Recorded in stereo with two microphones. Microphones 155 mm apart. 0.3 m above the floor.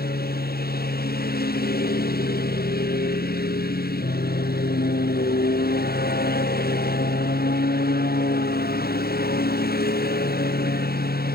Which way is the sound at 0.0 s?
85° left.